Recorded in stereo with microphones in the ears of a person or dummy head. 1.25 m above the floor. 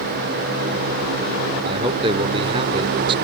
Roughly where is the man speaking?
Right.